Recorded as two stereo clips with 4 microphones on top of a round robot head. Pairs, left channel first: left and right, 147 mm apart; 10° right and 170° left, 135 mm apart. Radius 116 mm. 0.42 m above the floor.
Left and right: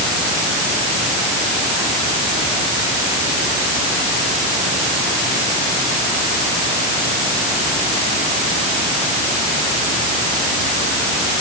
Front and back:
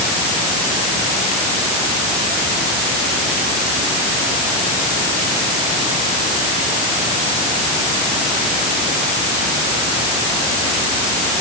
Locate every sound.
Only background noise.